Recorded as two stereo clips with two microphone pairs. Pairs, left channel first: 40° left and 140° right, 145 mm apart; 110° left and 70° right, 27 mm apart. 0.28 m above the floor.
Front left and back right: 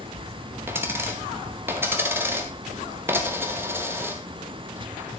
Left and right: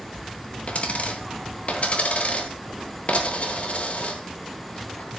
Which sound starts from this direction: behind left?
A dropped coin, at 0.7 s.